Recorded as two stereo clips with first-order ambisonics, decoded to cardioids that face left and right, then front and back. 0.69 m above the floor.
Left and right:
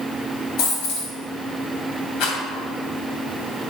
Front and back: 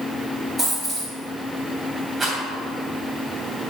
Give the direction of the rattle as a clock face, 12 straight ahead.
8 o'clock.